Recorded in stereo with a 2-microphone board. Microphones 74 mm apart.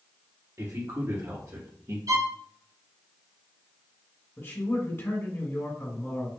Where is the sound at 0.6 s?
40° right (ahead or behind), 1.9 m; by 2.0 s 50° right (ahead or behind), 1.7 m.